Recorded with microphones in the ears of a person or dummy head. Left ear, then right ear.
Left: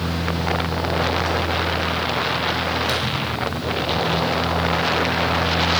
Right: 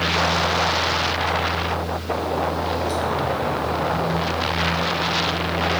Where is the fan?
30° left (ahead or behind), 2.5 m.